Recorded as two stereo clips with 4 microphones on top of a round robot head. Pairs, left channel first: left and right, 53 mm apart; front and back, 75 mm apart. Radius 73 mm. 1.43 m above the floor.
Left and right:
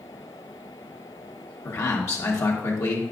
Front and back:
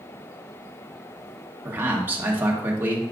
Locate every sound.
1.6 s a man speaking: 115° left, 1.6 m